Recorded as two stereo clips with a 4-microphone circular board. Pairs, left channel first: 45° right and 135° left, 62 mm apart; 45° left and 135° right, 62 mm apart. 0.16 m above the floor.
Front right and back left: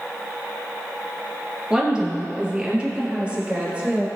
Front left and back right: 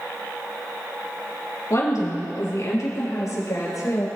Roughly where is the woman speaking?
Ahead left.